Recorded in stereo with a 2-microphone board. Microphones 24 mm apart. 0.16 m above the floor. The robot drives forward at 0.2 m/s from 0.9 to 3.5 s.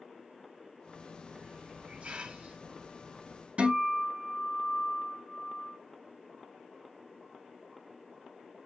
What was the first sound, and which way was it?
A hiss, 60° right (ahead or behind).